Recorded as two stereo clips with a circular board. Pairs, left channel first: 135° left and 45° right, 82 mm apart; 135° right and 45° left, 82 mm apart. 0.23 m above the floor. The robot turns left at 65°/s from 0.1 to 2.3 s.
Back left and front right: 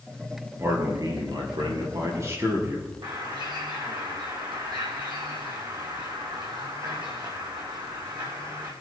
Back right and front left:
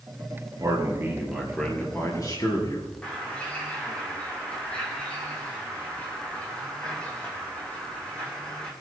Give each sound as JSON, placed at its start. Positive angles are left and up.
{"t": 0.6, "sound": "a man speaking", "azimuth_deg": 10, "distance_m": 4.0}
{"t": 3.0, "sound": "a bird", "azimuth_deg": -60, "distance_m": 3.5}